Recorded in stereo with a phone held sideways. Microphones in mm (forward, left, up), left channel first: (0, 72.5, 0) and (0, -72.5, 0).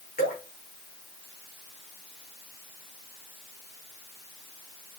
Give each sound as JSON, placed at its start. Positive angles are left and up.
{"t": 0.2, "sound": "dripping", "side_deg": 70, "distance_m": 6.0}